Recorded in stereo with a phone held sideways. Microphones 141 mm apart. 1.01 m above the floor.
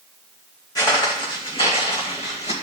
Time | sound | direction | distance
0.8 | footsteps | 30° left (ahead or behind) | 3.5 m